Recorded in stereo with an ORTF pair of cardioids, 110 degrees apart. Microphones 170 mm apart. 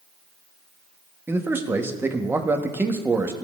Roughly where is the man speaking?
Ahead.